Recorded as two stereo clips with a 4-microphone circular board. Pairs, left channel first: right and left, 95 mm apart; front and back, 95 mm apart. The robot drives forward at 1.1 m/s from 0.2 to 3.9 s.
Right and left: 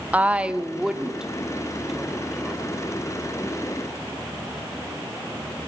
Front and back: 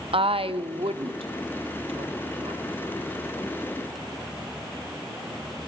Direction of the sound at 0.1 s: 165° left.